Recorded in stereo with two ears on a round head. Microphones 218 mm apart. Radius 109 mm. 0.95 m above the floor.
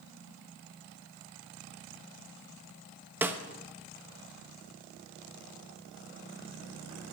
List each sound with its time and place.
3.2 s a snare drum: 10° right (ahead or behind), 0.9 m